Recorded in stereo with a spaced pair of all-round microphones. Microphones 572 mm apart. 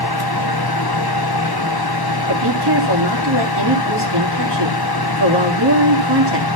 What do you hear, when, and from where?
0.0 s a fan: 40° left (ahead or behind), 1.1 m
2.3 s a woman speaking: 45° right (ahead or behind), 2.5 m